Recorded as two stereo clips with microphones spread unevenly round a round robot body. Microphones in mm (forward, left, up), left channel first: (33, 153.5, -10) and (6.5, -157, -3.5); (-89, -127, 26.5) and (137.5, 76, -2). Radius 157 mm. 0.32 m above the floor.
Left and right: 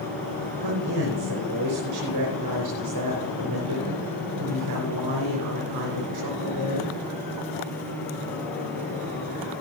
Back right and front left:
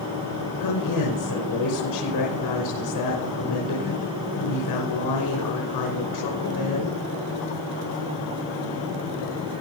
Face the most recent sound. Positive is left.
turn(degrees=-125)